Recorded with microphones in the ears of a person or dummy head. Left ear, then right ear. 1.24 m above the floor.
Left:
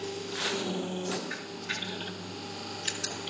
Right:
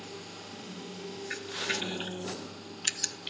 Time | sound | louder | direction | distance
1.3 | a camera shutter | right 2 dB | 45° right (ahead or behind) | 0.7 m